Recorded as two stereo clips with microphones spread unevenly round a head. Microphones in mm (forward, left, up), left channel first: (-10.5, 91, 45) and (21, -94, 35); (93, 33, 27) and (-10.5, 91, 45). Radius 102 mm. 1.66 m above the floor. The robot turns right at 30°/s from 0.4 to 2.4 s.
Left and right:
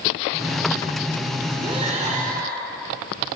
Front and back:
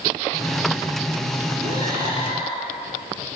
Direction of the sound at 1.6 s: 150° right.